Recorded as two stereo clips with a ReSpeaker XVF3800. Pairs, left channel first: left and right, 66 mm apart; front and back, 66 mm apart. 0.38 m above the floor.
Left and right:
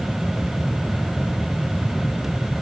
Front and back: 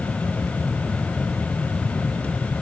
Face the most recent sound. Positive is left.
No sound to turn to.